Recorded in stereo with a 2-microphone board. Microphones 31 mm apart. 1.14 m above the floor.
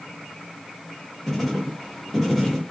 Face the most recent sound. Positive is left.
turn(degrees=10)  # may be behind; listen again after turning